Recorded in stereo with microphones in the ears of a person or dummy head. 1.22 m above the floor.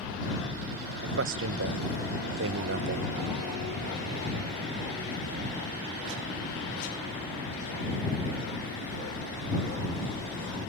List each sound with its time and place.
1.0 s a man speaking: 55° right (ahead or behind); by 3.1 s 45° right (ahead or behind)